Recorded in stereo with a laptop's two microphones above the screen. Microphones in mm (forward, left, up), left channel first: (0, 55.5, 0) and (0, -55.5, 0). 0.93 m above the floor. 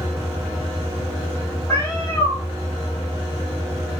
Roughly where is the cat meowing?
Left.